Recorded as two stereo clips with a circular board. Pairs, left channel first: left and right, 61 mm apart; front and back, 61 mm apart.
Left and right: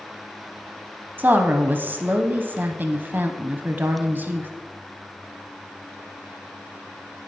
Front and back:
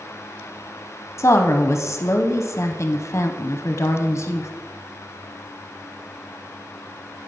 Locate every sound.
1.2 s a woman speaking: 35° right, 0.7 m